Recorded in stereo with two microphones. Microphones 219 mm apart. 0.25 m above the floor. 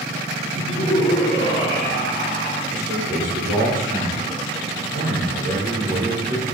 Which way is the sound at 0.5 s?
25° left (ahead or behind).